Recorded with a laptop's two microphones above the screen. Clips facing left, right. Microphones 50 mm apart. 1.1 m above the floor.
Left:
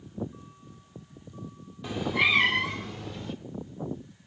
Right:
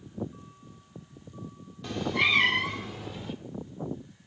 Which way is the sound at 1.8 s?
10° left (ahead or behind).